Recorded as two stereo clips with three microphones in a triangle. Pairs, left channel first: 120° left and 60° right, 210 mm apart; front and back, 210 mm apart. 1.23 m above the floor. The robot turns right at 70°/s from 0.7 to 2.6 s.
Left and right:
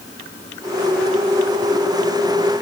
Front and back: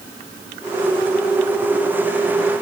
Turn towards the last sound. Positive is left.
No sound to turn to.